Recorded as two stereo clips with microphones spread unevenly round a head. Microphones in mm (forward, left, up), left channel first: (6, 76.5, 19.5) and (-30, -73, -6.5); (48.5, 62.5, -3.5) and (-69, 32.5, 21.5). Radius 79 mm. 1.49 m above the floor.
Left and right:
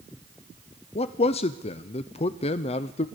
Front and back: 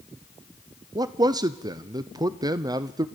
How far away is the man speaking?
About 0.6 m.